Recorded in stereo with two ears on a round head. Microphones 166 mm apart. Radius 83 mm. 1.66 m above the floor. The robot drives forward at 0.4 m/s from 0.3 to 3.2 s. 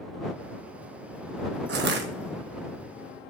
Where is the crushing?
60° right (ahead or behind), 1.3 m.